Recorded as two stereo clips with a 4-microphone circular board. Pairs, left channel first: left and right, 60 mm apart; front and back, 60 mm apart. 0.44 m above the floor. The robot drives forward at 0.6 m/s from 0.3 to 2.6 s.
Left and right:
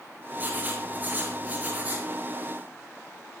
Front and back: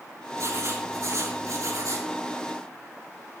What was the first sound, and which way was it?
Writing, 150° right.